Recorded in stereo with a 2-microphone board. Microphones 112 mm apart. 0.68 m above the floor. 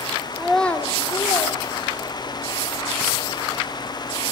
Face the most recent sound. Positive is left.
turn(degrees=55)  # may be behind; listen again after turning